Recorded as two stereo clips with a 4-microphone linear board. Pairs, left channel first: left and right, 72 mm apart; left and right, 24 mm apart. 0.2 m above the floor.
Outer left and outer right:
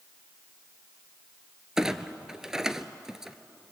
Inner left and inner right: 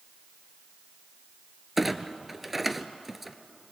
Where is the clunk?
10° right (ahead or behind), 0.9 m.